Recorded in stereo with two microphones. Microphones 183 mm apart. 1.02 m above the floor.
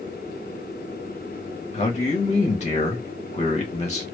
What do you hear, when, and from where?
1.7 s a man speaking: 40° left (ahead or behind), 0.9 m